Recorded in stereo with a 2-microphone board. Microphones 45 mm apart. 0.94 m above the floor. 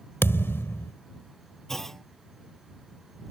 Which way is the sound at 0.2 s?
60° left (ahead or behind).